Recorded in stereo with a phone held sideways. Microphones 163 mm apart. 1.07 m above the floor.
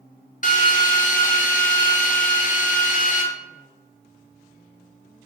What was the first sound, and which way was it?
A drill, 50° left (ahead or behind).